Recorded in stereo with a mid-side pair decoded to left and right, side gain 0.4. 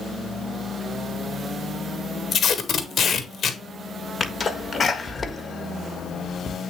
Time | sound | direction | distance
2.3 | tape being pulled | 50° left | 1.1 m
4.2 | a sneeze | 35° left | 1.5 m